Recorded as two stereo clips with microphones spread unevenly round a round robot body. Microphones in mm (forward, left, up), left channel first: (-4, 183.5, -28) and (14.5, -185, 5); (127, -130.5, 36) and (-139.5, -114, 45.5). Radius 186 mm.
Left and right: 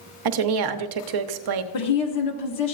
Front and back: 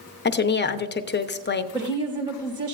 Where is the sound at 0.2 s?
55° right, 0.9 m.